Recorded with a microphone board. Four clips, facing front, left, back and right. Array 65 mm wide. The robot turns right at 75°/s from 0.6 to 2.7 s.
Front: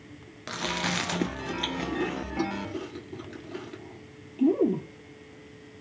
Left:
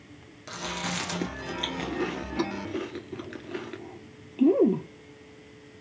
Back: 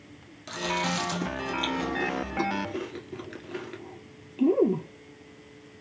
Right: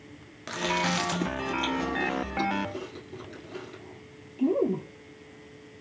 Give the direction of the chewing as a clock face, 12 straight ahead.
1 o'clock.